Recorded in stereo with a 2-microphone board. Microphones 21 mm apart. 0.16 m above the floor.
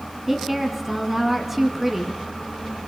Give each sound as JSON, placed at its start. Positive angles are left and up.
{"t": 0.3, "sound": "a woman speaking", "side_deg": -10, "distance_m": 1.6}